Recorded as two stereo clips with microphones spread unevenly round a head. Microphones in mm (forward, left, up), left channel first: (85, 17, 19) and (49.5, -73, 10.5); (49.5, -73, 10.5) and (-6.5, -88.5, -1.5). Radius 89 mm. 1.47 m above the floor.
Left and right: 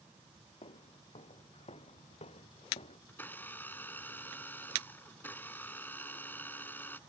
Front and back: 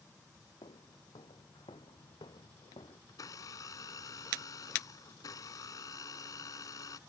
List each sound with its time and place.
0.6 s footsteps: 50° left; by 3.0 s 55° left
3.1 s a blender: straight ahead